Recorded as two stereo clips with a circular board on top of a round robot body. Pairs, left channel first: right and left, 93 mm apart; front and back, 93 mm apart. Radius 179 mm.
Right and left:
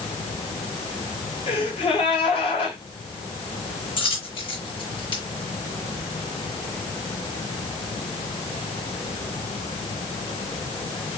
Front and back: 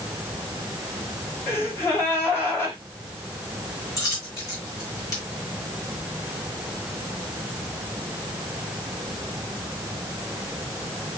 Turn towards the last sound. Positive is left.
turn(degrees=-55)